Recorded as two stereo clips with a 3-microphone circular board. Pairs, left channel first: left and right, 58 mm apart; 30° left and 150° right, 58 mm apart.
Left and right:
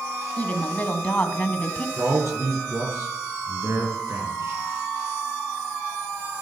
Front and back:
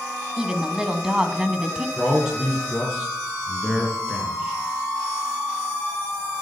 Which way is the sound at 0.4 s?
140° left.